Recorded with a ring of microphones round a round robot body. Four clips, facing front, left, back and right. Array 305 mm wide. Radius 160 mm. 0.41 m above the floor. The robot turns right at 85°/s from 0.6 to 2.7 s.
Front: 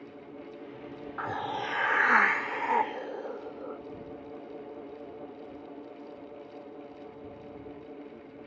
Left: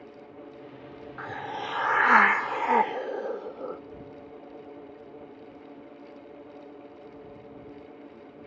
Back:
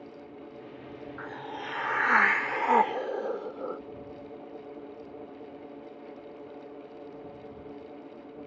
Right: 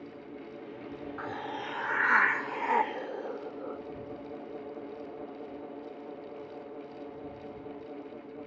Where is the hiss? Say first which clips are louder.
Left 4 dB, front 7 dB; 10° left; by 3.8 s 140° left.